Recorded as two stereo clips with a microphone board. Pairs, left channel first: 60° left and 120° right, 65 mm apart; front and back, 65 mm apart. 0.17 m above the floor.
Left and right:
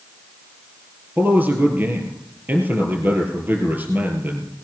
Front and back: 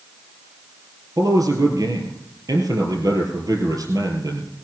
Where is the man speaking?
Straight behind, 3 m.